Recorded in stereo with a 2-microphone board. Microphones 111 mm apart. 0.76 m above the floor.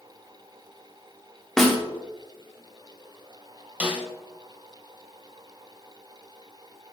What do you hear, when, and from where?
1.6 s a snare drum: 5° left (ahead or behind), 1.2 m
3.8 s a snare drum: 15° right (ahead or behind), 1.3 m